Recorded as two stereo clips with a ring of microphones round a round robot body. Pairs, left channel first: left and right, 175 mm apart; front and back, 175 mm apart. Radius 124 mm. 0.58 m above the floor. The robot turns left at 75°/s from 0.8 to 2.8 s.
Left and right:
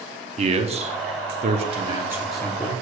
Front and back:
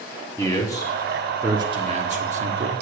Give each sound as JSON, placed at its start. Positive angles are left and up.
{"t": 0.4, "sound": "a man speaking", "azimuth_deg": -65, "distance_m": 1.0}